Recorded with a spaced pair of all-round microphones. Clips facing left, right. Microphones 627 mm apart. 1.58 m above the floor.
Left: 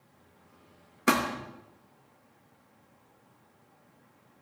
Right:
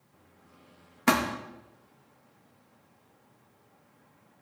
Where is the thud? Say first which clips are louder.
Right 1 dB; 25° right (ahead or behind), 0.9 m.